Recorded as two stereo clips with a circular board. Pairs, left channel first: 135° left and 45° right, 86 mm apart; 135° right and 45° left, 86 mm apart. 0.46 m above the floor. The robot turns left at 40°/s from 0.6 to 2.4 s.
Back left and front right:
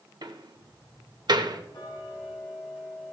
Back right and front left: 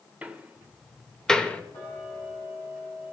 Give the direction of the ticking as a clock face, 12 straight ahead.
7 o'clock.